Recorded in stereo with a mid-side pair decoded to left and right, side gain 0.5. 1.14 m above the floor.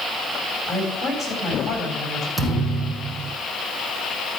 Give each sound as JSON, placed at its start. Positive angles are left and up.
{"t": 0.7, "sound": "a woman speaking", "azimuth_deg": 20, "distance_m": 8.5}
{"t": 2.4, "sound": "a thud", "azimuth_deg": -10, "distance_m": 4.5}